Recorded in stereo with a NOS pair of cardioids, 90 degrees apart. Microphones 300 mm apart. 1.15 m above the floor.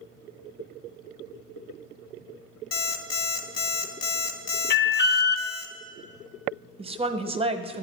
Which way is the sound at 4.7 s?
35° left.